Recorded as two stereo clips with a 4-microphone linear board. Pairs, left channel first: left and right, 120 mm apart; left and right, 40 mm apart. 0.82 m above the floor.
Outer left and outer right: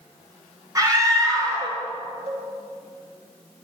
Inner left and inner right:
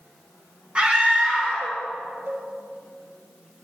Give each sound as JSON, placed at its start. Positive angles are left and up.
{"t": 0.8, "sound": "a scream", "side_deg": -30, "distance_m": 3.5}
{"t": 2.3, "sound": "a cowbell", "side_deg": -60, "distance_m": 1.9}